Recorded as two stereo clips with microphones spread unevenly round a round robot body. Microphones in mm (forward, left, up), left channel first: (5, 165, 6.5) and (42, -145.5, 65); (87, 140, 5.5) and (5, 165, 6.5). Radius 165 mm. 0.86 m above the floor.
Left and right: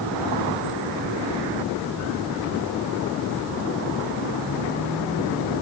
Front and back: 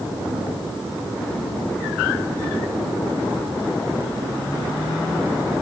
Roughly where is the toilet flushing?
No toilet flushing in this recording.